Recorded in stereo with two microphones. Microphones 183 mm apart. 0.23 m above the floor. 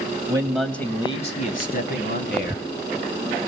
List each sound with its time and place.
0.3 s a man speaking: 20° right (ahead or behind), 1.0 m; by 2.6 s 65° left (ahead or behind), 2.0 m